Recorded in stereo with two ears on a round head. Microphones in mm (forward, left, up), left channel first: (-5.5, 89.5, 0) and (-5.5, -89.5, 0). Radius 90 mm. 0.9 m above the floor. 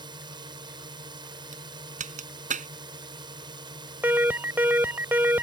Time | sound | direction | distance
0.0 | a drone | 25° right (ahead or behind) | ?
1.5 | a crack | 40° right (ahead or behind) | ?
4.0 | an alarm | 10° right (ahead or behind) | ?